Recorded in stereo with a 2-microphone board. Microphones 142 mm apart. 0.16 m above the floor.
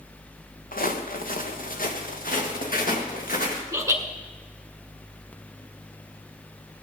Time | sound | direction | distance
0.7 | footsteps | 85° left | 1.6 m
3.7 | laughter | 20° right (ahead or behind) | 2.0 m